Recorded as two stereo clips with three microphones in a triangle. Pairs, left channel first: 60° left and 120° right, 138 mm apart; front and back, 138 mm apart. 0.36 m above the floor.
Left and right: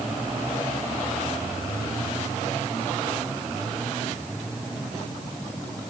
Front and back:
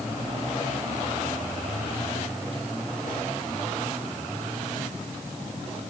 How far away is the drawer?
No drawer in this recording.